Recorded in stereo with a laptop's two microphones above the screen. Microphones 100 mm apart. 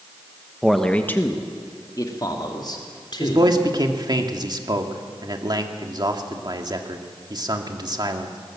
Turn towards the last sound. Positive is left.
turn(degrees=-45)  # may be behind; listen again after turning